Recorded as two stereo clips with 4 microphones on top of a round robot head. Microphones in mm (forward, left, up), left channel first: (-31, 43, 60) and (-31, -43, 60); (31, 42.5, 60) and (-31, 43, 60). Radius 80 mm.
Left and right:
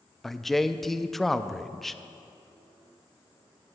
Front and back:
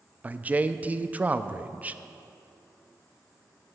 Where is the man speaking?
170° left, 0.5 m.